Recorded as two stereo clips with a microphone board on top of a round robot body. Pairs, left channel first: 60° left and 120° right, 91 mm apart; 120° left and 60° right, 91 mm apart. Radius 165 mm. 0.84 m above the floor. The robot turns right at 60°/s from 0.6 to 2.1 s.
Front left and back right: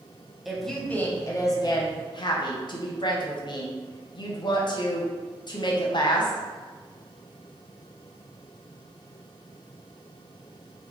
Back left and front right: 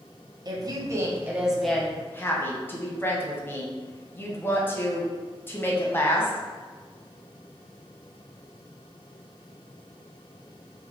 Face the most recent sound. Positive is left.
turn(degrees=60)